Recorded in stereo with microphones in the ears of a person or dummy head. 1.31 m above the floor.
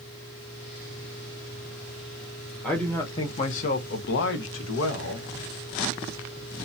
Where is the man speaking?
5° left (ahead or behind), 0.8 m; by 5.3 s 85° left, 1.2 m.